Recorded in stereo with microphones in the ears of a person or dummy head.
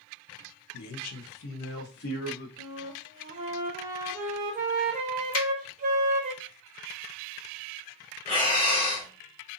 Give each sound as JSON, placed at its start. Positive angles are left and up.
{"t": 0.7, "sound": "a man speaking", "side_deg": 85, "distance_m": 0.6}
{"t": 2.6, "sound": "a flute", "side_deg": -35, "distance_m": 0.6}
{"t": 5.3, "sound": "a finger snap", "side_deg": 70, "distance_m": 1.2}
{"t": 8.2, "sound": "breathing", "side_deg": 30, "distance_m": 1.6}